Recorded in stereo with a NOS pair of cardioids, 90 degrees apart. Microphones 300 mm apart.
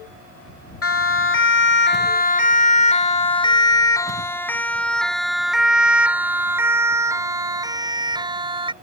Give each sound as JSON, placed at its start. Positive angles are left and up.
{"t": 0.8, "sound": "a siren", "azimuth_deg": 50}